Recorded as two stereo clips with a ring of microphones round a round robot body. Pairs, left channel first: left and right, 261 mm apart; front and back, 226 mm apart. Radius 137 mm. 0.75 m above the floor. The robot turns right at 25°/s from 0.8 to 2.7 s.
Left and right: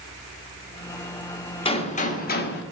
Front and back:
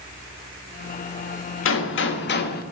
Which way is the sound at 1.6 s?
20° left.